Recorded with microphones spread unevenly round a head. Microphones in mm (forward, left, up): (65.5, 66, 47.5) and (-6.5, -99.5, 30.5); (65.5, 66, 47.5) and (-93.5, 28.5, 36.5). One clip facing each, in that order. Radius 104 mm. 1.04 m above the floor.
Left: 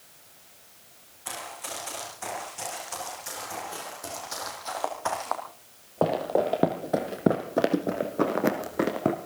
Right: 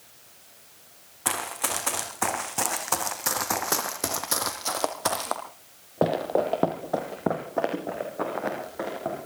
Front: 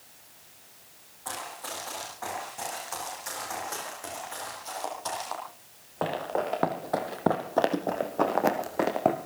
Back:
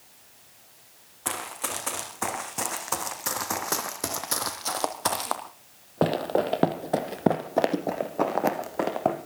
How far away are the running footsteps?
About 3.5 m.